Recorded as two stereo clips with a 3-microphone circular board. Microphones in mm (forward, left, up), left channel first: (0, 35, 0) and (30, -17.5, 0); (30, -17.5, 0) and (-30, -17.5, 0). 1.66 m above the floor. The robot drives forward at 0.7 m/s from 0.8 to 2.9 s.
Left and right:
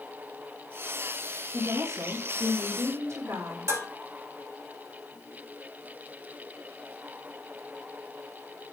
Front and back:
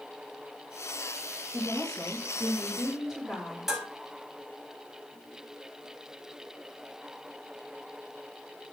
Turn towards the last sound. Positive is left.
turn(degrees=-95)